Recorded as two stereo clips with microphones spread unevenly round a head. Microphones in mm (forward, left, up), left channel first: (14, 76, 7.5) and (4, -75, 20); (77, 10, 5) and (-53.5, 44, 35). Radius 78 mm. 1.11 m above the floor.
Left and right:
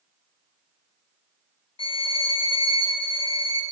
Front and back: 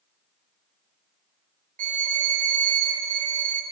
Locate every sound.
1.8 s a violin: 135° left, 0.7 m